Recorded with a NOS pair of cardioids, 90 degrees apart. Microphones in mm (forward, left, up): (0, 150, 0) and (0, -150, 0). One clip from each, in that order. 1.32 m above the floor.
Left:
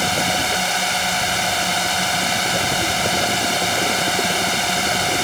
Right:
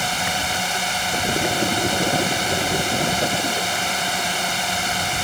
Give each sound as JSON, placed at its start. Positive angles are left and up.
{"t": 0.0, "sound": "a drone", "azimuth_deg": 25}